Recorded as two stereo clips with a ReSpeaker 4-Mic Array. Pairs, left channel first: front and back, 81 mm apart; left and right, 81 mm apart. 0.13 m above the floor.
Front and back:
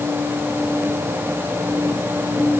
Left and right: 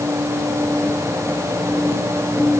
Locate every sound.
Only background noise.